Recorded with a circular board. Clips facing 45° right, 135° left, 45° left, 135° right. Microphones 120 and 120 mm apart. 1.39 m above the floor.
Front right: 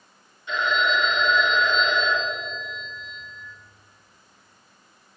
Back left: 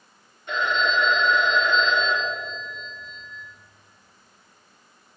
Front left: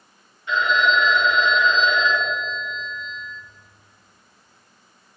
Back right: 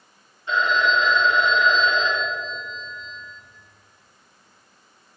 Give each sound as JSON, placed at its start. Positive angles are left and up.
{"t": 0.5, "sound": "a phone ringing", "azimuth_deg": 170, "distance_m": 1.7}